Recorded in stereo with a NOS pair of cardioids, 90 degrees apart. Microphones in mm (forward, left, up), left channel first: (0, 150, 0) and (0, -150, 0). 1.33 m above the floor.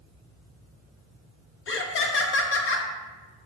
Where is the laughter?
45° left, 0.6 m.